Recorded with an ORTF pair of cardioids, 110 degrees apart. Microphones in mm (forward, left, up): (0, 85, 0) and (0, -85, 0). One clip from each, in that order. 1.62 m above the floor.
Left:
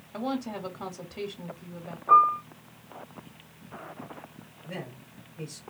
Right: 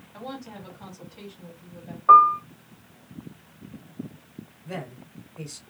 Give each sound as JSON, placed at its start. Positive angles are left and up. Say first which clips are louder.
{"t": 0.1, "sound": "a woman speaking", "louder": "left 6 dB", "azimuth_deg": 55, "distance_m": 0.8}
{"t": 2.1, "sound": "a piano", "louder": "right 5 dB", "azimuth_deg": -50, "distance_m": 0.8}
{"t": 4.7, "sound": "a man speaking", "louder": "right 3 dB", "azimuth_deg": -50, "distance_m": 0.9}